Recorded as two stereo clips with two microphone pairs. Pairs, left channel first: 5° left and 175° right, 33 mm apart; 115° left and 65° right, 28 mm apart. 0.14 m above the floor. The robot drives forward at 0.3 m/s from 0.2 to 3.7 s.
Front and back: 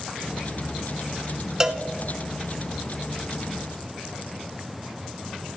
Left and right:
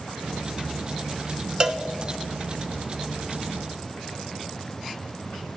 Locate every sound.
1.6 s a cowbell: 115° right, 0.8 m; by 1.8 s 120° right, 0.8 m